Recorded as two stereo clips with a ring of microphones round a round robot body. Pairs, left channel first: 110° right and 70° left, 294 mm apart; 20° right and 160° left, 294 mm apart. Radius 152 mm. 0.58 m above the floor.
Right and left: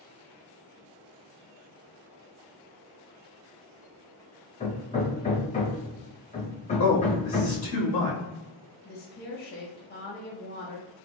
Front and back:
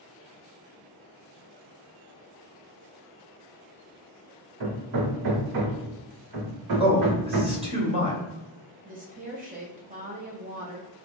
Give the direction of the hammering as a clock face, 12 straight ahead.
6 o'clock.